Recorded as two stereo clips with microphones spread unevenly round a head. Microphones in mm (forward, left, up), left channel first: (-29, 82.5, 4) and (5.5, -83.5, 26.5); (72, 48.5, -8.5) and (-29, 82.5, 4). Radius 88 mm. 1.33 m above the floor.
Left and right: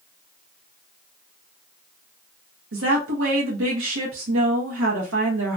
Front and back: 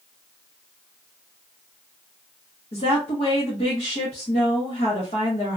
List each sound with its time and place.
2.7 s a woman speaking: 70° right, 1.0 m